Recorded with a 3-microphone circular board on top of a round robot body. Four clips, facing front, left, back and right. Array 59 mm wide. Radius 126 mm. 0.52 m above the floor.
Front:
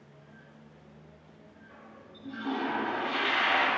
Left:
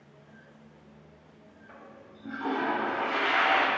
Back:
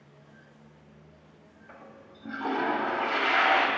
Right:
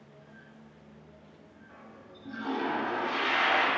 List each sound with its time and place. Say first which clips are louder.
1.7 s a toilet flushing: left 2 dB, back 4 dB; 150° left, 0.6 m